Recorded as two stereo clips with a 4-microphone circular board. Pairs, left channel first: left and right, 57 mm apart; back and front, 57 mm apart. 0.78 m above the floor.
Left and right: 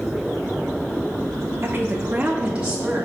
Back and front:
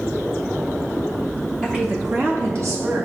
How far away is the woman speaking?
About 0.7 m.